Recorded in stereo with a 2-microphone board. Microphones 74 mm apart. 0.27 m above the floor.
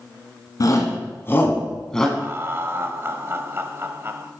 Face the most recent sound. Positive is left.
turn(degrees=-35)  # may be behind; listen again after turning